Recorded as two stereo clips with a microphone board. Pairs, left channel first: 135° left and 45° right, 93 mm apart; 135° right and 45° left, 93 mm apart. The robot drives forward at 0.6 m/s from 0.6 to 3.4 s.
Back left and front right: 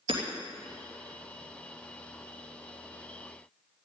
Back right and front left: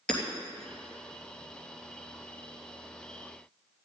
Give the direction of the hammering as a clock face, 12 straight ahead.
2 o'clock.